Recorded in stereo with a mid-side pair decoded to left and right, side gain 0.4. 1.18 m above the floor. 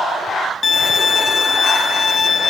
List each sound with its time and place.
0.6 s a violin: 40° left, 1.8 m